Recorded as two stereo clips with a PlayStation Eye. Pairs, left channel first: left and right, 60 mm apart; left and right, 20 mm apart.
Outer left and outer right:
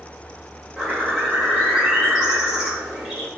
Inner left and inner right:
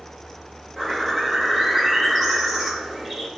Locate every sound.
0.8 s a bird: 10° right (ahead or behind), 1.4 m